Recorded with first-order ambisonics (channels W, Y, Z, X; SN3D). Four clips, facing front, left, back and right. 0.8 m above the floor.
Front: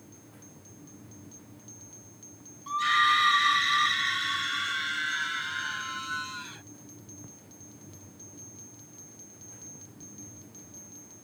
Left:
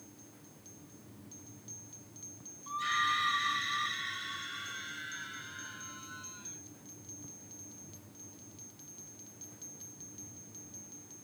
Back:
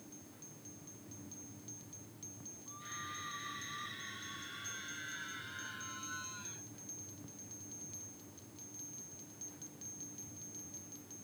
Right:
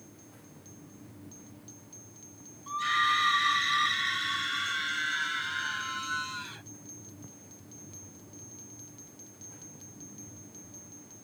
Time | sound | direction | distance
2.7 | a scream | 10° right | ?